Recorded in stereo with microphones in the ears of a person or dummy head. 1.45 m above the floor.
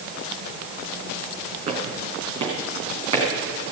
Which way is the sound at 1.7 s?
35° right (ahead or behind).